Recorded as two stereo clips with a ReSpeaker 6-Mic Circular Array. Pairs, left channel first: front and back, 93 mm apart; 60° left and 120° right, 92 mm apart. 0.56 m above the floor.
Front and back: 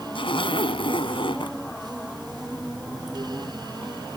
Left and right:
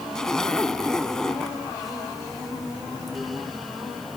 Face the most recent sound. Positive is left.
turn(degrees=-25)